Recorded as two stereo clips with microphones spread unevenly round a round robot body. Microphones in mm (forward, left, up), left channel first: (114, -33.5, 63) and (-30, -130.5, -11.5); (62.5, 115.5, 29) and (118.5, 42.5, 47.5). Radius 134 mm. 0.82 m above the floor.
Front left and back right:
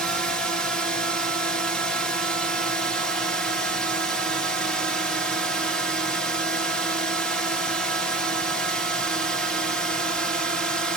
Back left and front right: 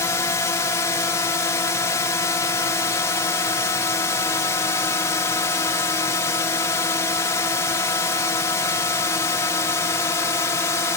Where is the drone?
145° left.